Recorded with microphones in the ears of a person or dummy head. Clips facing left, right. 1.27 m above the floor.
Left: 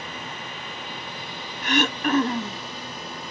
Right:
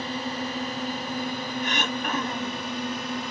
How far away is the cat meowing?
I don't hear a cat meowing.